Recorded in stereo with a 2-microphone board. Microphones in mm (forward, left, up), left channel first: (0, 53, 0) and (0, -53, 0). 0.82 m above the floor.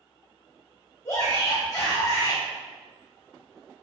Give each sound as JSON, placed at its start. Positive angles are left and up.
{"t": 1.1, "sound": "a shout", "side_deg": 25, "distance_m": 1.1}